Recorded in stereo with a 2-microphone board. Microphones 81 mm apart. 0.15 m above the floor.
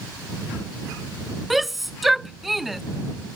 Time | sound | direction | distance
1.5 | a shout | centre (ahead or behind) | ?